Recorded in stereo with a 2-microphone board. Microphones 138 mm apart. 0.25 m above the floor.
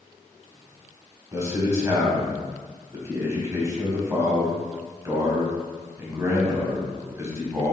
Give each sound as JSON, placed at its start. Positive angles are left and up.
{"t": 1.3, "sound": "a man speaking", "side_deg": -20, "distance_m": 1.2}